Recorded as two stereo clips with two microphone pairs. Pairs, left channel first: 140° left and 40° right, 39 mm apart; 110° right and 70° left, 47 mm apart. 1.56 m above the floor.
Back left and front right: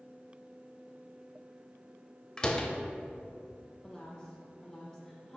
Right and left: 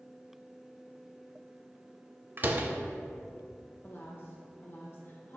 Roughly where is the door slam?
Left.